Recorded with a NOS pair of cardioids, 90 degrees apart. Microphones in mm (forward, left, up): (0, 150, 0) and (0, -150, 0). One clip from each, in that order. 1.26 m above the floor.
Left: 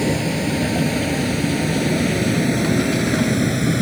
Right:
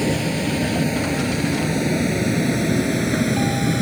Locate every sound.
0.0 s a vehicle: 5° left; by 3.8 s 10° left